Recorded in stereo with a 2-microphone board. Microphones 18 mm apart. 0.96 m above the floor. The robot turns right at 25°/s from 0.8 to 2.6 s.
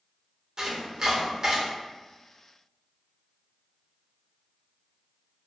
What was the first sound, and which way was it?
Chopping, 40° right (ahead or behind).